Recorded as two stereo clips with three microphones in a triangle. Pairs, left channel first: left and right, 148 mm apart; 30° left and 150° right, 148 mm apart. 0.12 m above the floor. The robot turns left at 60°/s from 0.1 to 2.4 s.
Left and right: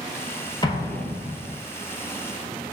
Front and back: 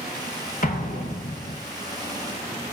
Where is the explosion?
35° left, 1.0 m; by 1.6 s 25° right, 1.0 m.